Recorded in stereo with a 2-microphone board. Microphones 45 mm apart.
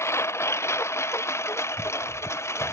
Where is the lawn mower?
75° left (ahead or behind).